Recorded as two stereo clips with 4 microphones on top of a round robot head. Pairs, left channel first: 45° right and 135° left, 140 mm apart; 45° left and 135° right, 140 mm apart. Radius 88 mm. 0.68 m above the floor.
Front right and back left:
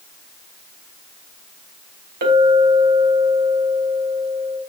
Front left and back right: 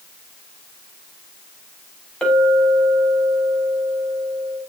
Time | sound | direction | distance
2.2 | a clink | 130° left | 3.5 m